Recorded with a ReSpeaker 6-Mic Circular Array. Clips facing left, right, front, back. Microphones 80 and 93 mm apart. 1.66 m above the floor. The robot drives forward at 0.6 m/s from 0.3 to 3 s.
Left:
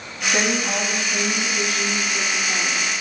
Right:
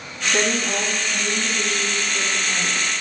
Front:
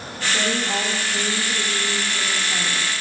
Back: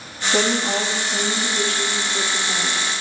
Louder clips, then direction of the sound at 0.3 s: Even, back 4 dB; 165° left.